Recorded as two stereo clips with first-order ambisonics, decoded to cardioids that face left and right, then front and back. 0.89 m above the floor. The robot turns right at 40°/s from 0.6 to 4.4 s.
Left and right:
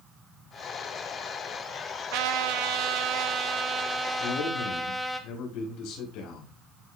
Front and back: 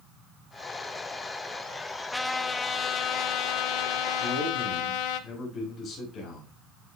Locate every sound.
2.1 s a trumpet: 85° right, 1.0 m; by 5.2 s 5° left, 1.0 m
4.2 s a man speaking: 55° left, 6 m; by 6.6 s 60° left, 6 m